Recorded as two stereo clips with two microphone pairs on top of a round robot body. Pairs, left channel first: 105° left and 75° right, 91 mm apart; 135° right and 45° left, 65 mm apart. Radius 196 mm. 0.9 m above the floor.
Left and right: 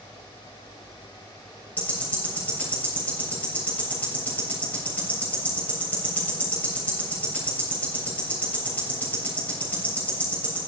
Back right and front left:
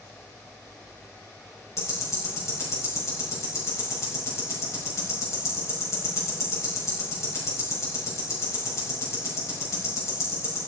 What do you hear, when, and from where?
1.8 s ticking: straight behind, 7 m